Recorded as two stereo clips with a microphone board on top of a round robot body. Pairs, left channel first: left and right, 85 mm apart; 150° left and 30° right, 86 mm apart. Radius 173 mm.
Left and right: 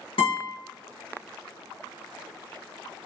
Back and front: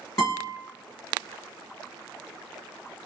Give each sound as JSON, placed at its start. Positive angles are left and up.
{"t": 0.2, "sound": "a guitar", "azimuth_deg": 90, "distance_m": 1.6}